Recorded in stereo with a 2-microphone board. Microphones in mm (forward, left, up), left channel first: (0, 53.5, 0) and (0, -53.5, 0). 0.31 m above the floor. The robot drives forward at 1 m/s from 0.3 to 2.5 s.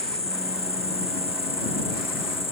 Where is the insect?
75° left (ahead or behind); by 2.5 s 60° left (ahead or behind).